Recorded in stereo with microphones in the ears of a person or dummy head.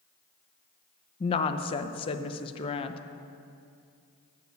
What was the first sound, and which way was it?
A woman speaking, 30° left (ahead or behind).